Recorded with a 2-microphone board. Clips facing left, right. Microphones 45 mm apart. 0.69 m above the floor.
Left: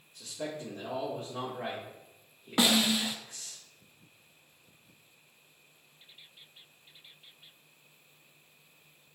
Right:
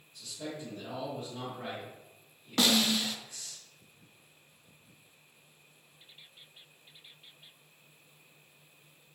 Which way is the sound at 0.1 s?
55° left (ahead or behind).